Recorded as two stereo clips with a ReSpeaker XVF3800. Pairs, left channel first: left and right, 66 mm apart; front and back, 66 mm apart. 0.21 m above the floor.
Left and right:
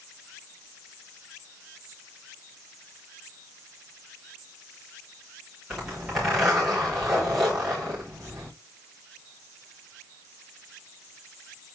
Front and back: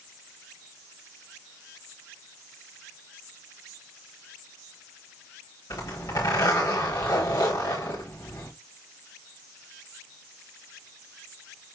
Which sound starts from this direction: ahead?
A zipper, at 5.7 s.